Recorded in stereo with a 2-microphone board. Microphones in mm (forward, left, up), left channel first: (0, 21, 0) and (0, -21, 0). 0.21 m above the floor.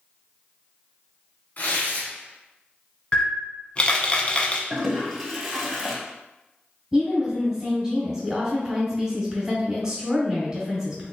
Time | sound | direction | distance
1.6 | tearing paper | 45° left (ahead or behind) | 1.1 m
3.1 | a camera shutter | 30° left (ahead or behind) | 0.6 m
4.7 | a toilet flushing | centre (ahead or behind) | 1.0 m
6.9 | a woman speaking | 20° right (ahead or behind) | 1.6 m